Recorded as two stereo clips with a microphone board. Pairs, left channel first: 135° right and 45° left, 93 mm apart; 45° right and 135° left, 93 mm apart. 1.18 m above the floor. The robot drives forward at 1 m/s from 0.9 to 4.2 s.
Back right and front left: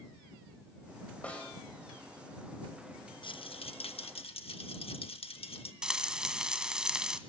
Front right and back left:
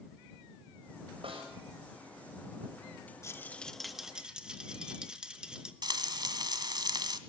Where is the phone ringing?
No phone ringing in this recording.